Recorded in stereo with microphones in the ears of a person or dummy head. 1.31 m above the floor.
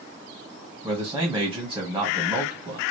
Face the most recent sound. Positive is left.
turn(degrees=-15)  # may be behind; listen again after turning